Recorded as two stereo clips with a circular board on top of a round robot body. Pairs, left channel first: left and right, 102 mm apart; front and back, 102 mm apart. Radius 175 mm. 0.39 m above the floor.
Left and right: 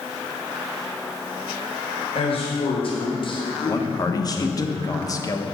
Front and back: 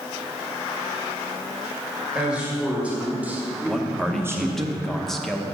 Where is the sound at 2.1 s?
100° left, 2.5 m; by 4.7 s 135° left, 1.1 m.